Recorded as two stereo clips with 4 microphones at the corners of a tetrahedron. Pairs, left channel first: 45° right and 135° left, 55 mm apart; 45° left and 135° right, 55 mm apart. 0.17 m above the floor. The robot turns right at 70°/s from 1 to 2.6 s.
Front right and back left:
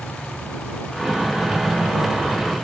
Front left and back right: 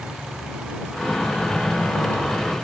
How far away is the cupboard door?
I don't hear a cupboard door.